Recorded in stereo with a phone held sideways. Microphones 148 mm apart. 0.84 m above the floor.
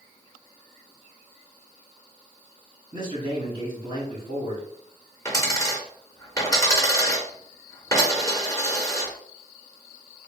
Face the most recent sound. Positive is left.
turn(degrees=20)  # may be behind; listen again after turning